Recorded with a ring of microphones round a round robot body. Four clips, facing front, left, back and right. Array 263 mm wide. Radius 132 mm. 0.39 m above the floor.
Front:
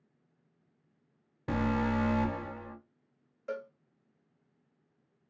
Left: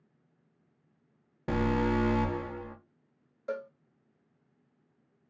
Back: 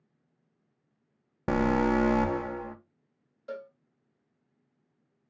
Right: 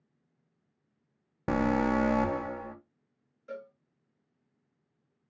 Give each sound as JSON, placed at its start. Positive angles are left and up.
{"t": 1.5, "sound": "an alarm", "azimuth_deg": -150, "distance_m": 0.6}
{"t": 3.5, "sound": "a cowbell", "azimuth_deg": 80, "distance_m": 0.6}